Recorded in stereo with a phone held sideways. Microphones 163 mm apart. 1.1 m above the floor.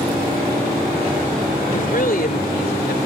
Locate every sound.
1.7 s a woman speaking: 60° left (ahead or behind); by 3.1 s 80° left